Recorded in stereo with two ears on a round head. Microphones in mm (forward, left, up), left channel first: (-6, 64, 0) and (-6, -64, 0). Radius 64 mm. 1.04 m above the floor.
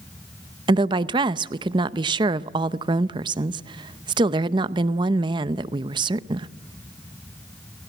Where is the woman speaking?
30° right (ahead or behind), 0.7 m.